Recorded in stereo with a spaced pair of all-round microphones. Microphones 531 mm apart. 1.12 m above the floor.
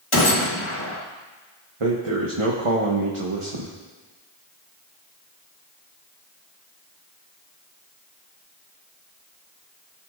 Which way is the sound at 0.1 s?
65° left (ahead or behind).